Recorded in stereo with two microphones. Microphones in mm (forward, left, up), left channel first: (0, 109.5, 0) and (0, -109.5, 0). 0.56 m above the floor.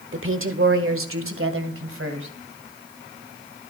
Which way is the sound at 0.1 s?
65° right (ahead or behind).